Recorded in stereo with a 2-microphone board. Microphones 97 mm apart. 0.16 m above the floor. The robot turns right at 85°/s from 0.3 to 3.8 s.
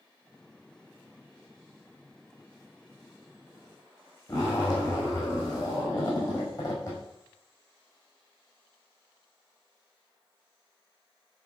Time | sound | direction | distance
4.3 | a zipper | 40° left (ahead or behind) | 4 m